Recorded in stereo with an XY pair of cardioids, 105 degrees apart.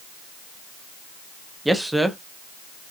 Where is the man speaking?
5° right, 1.0 m.